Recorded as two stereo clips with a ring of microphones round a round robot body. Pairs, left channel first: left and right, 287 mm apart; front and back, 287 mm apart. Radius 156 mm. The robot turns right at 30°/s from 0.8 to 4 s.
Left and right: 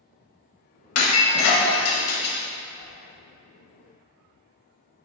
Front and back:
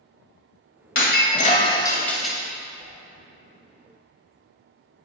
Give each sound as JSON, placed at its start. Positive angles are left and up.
{"t": 0.9, "sound": "breaking glass", "azimuth_deg": 50, "distance_m": 1.3}
{"t": 2.8, "sound": "a whoosh", "azimuth_deg": 110, "distance_m": 1.8}